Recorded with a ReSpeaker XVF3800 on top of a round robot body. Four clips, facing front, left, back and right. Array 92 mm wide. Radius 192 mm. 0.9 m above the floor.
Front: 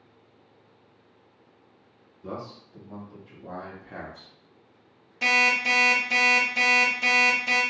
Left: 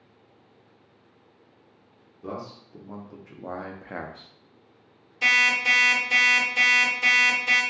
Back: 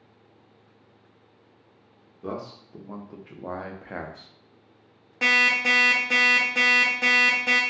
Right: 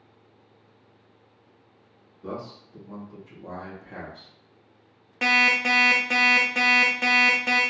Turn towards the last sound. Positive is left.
turn(degrees=-125)